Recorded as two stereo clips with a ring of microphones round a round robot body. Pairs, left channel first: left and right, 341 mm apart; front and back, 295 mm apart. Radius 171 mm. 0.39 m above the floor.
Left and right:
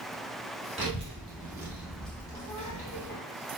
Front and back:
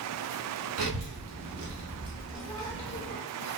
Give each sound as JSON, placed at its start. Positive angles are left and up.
{"t": 0.8, "sound": "a child speaking", "azimuth_deg": -160, "distance_m": 1.0}